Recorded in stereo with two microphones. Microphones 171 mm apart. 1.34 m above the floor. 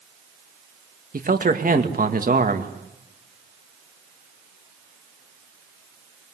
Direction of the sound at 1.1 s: 55° right (ahead or behind).